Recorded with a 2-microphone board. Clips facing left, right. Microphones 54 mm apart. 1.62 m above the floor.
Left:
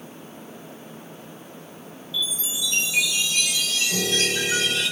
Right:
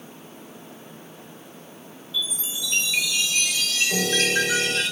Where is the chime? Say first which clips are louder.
Left 1 dB; 45° right (ahead or behind), 4 m.